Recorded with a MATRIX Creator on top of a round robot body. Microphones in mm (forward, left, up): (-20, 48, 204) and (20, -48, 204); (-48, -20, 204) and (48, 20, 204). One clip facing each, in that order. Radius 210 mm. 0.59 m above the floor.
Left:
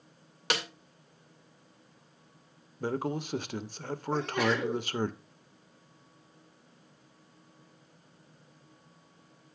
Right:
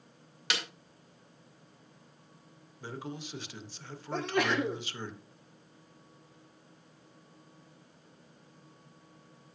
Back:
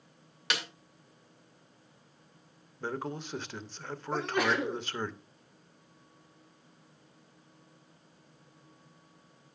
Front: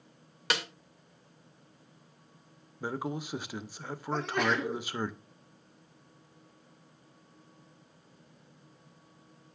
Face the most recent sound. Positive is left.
turn(degrees=-70)